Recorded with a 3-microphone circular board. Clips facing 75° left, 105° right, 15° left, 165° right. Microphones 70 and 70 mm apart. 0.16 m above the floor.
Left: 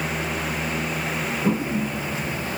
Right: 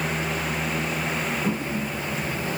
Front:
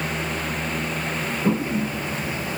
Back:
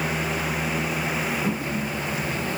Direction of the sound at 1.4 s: 30° left.